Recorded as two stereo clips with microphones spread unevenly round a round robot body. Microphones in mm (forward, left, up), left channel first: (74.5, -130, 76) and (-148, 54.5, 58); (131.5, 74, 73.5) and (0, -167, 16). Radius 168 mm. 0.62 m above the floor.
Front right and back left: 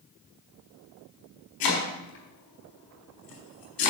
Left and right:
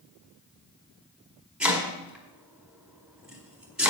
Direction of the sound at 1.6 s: 35° right.